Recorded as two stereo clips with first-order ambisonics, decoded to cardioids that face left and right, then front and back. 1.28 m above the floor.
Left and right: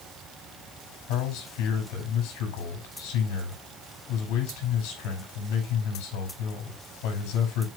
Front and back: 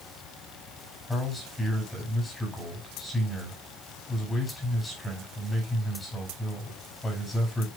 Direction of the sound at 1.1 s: 80° left.